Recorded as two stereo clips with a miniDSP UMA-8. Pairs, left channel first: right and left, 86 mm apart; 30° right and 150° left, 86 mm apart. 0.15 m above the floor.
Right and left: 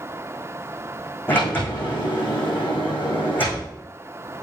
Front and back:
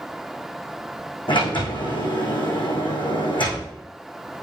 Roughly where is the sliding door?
Ahead right.